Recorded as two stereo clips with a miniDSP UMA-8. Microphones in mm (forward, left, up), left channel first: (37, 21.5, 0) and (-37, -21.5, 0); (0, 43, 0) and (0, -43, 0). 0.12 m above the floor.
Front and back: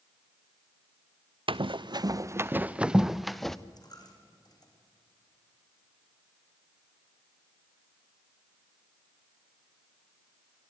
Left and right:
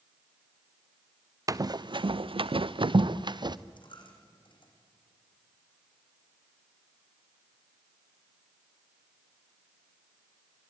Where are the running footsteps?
140° right, 0.6 m; by 3.6 s 55° right, 1.1 m.